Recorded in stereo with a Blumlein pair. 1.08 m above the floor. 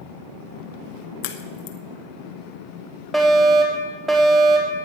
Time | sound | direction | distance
1.2 | a crack | 45° left | 1.3 m
3.1 | a fire alarm | 10° right | 4 m